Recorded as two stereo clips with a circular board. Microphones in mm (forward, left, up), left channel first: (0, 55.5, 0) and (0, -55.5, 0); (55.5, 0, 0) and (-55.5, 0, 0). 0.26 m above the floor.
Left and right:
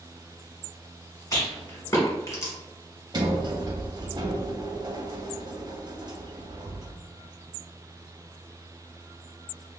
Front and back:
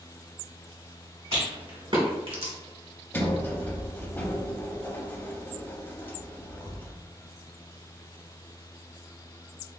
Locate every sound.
1.3 s a rattle: 150° left, 1.1 m
3.1 s a sliding door: 65° right, 0.5 m